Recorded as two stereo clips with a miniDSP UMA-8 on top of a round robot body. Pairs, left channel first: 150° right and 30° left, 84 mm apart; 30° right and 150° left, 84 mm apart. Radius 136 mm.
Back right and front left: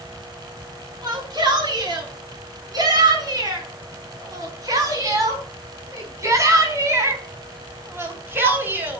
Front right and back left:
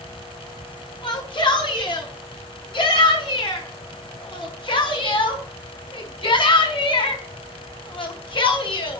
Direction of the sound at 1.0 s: 10° right.